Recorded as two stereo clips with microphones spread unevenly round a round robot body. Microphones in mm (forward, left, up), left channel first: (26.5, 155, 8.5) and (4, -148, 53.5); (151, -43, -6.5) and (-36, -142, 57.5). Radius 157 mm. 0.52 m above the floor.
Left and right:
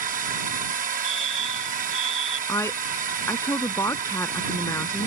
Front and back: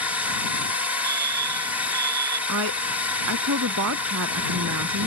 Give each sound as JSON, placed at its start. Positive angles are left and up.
{"t": 0.0, "sound": "a drone", "azimuth_deg": -45}
{"t": 1.0, "sound": "a fire alarm", "azimuth_deg": 160}
{"t": 2.5, "sound": "a woman speaking", "azimuth_deg": 170}